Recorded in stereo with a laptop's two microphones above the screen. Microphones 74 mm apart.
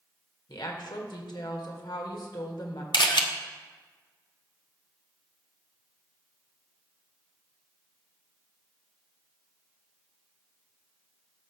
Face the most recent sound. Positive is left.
turn(degrees=80)